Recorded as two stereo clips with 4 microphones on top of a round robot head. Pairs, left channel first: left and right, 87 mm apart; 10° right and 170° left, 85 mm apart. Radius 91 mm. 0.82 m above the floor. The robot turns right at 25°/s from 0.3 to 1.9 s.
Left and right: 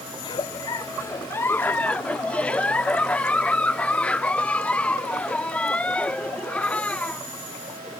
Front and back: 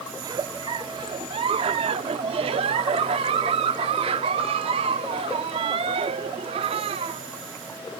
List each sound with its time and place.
0.2 s a giggle: 125° left; by 7.2 s 165° left